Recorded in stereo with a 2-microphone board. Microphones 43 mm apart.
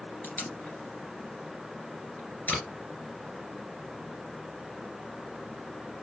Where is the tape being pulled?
40° left (ahead or behind), 2.0 m.